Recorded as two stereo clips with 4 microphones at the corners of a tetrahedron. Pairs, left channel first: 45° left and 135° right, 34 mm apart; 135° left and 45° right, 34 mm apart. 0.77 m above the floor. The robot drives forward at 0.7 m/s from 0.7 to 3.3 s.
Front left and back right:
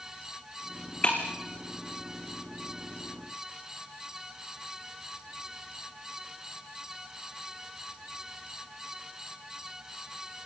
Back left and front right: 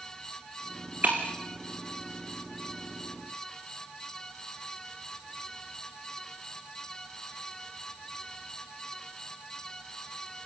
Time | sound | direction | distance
1.0 | breaking glass | 10° right | 4 m